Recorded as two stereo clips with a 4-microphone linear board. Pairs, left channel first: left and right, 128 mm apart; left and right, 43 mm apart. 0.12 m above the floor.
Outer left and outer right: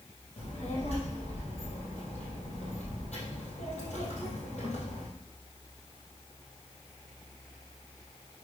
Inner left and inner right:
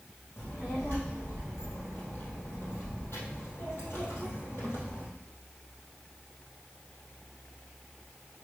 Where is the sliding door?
No sliding door in this recording.